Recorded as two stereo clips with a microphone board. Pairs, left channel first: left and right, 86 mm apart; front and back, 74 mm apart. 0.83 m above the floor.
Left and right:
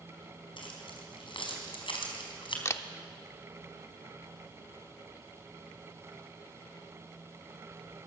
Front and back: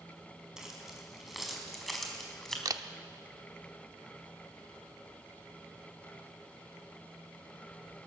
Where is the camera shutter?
145° left, 0.8 m.